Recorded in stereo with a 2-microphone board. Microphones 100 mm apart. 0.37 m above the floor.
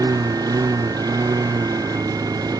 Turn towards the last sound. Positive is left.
turn(degrees=-40)  # may be behind; listen again after turning